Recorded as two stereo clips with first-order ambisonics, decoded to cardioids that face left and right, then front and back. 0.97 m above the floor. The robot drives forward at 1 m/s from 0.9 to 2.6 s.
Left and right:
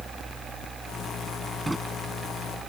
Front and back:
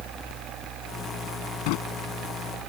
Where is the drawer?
5° right.